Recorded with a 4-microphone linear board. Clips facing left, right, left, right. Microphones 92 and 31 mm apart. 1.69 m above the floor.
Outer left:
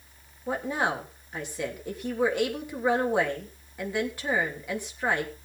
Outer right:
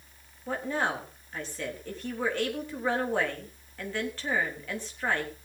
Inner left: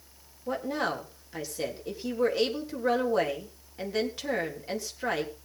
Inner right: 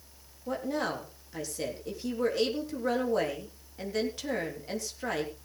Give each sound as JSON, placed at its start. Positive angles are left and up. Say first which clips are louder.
{"t": 0.5, "sound": "a woman speaking", "louder": "outer left 2 dB, inner left 2 dB", "side_deg": 15, "distance_m": 3.5}